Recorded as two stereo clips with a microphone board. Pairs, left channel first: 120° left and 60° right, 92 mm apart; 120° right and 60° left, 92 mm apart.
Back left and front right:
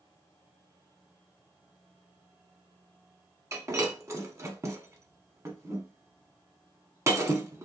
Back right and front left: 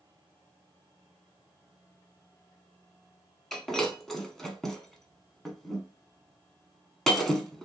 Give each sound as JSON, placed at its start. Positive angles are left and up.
{"t": 3.5, "sound": "breaking glass", "azimuth_deg": -35, "distance_m": 0.8}